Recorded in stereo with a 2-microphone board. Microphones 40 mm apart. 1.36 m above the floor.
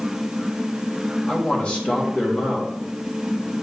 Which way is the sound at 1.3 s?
30° left (ahead or behind).